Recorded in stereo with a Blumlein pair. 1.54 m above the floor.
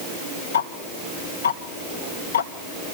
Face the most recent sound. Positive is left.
turn(degrees=65)